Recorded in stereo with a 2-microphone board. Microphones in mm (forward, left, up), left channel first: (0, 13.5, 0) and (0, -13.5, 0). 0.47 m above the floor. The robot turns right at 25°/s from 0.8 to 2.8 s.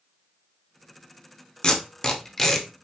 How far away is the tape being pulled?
About 0.8 m.